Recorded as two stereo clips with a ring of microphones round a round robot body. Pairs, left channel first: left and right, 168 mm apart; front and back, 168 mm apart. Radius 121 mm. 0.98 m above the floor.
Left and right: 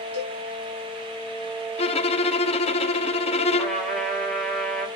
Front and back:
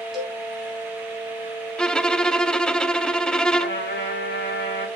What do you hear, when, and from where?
0.1 s a cowbell: 90° left, 5 m
1.8 s a violin: 80° left, 0.6 m
3.6 s a trumpet: 5° left, 4.5 m